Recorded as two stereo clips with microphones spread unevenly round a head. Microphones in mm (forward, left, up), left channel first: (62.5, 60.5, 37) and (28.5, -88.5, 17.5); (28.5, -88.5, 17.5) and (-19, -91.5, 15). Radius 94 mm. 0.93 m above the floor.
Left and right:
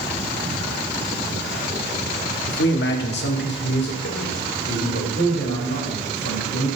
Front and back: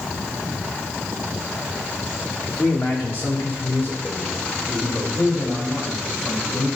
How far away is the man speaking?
About 1.2 m.